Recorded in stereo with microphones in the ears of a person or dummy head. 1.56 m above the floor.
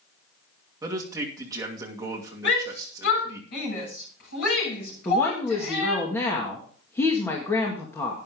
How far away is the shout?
About 7 m.